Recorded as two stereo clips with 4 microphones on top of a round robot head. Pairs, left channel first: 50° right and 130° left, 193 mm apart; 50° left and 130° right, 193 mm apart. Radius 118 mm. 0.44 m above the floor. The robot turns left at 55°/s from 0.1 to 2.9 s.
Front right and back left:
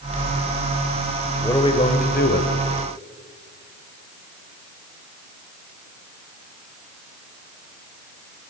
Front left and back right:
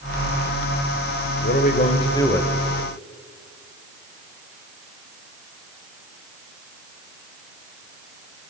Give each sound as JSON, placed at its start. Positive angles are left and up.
{"t": 1.4, "sound": "a man speaking", "azimuth_deg": 25, "distance_m": 3.0}